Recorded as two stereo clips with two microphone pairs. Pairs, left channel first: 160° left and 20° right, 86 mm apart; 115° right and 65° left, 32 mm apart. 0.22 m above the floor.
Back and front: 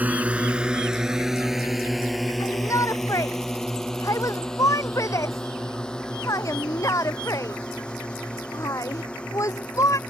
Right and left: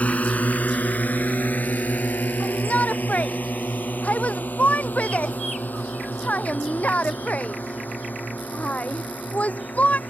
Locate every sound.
0.0 s a drone: 90° right; by 10.1 s 125° right
2.4 s a shout: 150° right